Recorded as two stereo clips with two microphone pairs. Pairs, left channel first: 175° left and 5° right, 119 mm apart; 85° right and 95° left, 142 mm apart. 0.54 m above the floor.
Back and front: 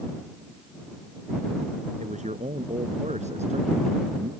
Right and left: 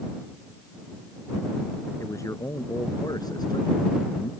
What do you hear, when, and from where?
2.0 s a man speaking: 15° right; by 4.3 s 30° right